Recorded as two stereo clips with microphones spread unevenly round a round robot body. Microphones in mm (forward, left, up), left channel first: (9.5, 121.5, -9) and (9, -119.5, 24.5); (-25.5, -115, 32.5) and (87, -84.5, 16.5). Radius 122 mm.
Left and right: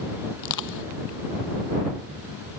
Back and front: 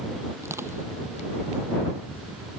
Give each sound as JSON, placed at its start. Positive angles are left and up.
{"t": 0.4, "sound": "crushing", "azimuth_deg": 95}